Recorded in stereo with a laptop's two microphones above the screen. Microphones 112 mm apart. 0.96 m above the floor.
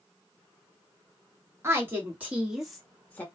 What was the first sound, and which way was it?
A woman speaking, 25° right (ahead or behind).